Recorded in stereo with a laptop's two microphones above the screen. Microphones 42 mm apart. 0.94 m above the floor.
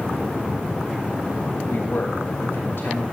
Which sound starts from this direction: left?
A man speaking, at 1.7 s.